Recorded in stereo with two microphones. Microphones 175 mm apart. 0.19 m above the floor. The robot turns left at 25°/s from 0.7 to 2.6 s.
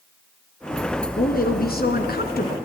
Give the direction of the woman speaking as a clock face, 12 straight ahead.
8 o'clock.